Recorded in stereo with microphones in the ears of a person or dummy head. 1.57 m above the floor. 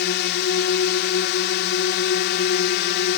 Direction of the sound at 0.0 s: 55° left (ahead or behind).